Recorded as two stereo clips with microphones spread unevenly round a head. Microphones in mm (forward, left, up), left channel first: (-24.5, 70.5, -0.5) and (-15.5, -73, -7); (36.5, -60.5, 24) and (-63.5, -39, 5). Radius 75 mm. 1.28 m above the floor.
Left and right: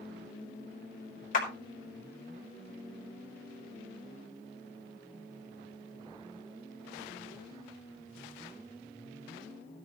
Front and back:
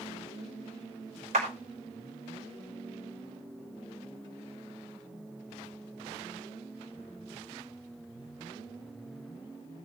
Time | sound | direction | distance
1.3 | a clap | 125° left | 2.5 m